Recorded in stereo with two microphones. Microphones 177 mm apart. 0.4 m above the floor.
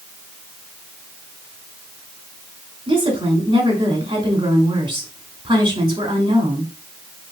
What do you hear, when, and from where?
2.9 s a woman speaking: 25° right (ahead or behind), 2 m